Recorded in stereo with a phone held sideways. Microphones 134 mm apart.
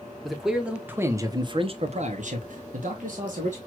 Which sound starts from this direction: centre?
A man speaking, at 0.2 s.